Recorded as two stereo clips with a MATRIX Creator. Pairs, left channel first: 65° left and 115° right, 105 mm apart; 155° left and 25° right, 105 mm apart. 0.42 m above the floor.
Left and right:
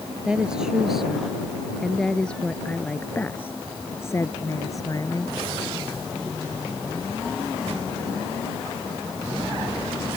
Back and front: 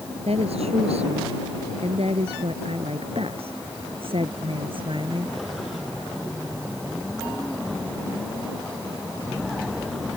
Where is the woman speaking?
30° right; by 5.4 s 15° left.